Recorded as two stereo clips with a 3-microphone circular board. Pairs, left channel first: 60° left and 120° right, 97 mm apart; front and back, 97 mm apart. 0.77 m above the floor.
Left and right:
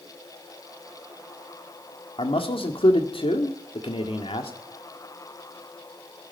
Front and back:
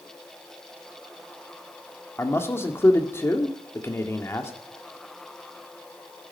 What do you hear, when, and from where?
2.2 s a man speaking: 60° left, 1.9 m